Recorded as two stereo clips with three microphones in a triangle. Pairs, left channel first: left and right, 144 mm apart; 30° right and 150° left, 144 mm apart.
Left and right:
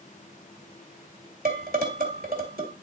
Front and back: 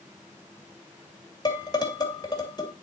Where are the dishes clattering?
90° right, 2 m.